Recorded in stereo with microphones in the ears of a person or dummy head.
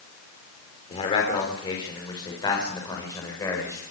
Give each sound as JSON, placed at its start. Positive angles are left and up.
{"t": 0.9, "sound": "a man speaking", "side_deg": 40, "distance_m": 5.0}